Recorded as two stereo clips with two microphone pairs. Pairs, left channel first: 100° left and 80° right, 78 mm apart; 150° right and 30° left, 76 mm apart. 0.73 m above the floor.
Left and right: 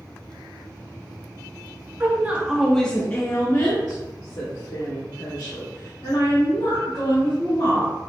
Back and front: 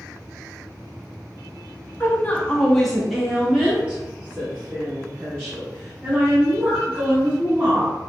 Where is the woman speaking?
110° right, 0.8 m; by 7.9 s 90° left, 3 m.